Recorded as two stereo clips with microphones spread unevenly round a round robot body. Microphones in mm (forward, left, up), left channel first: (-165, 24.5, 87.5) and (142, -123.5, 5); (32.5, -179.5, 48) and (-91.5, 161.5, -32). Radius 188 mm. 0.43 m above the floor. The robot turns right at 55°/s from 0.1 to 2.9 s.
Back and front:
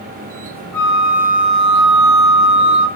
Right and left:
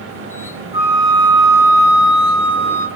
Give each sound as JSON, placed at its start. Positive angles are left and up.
{"t": 0.7, "sound": "a flute", "azimuth_deg": 105, "distance_m": 1.5}